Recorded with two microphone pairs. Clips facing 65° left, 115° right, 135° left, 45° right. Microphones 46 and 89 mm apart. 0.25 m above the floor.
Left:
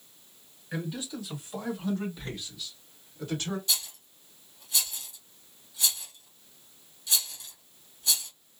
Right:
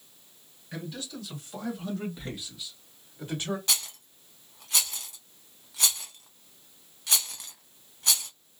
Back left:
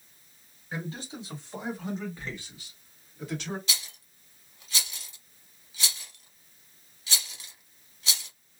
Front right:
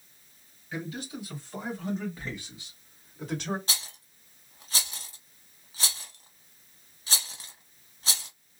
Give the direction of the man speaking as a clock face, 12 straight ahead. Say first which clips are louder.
Left 3 dB, front right 1 dB; 8 o'clock.